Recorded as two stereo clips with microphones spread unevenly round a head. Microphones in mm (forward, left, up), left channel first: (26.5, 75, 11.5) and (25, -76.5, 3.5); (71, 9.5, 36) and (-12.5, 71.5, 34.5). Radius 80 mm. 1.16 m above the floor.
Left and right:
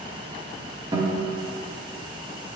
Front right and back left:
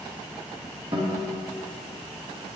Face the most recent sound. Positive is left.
turn(degrees=-155)